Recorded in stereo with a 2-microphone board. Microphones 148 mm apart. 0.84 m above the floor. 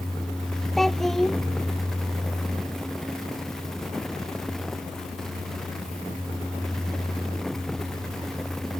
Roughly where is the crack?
No crack in this recording.